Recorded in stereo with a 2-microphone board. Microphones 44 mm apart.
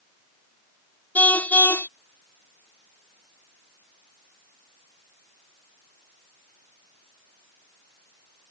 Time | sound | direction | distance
1.1 | a car horn | 40° left (ahead or behind) | ?